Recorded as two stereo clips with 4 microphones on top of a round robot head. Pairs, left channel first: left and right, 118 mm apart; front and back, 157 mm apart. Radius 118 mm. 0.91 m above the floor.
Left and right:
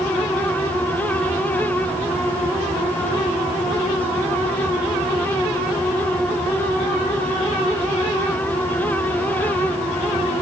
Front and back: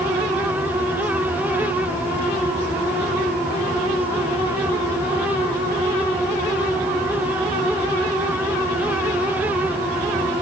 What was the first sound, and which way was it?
Only background noise.